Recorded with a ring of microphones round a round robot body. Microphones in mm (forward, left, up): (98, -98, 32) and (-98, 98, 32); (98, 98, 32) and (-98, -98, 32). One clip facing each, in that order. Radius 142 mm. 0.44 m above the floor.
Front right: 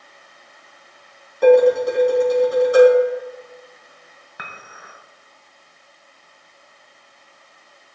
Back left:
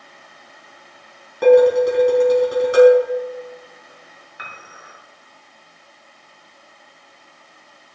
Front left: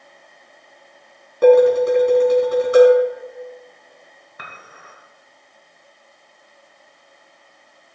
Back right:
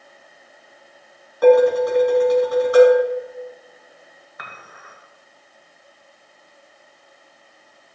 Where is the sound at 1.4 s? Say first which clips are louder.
Back left 1 dB, front left 2 dB; 105° left, 3 m.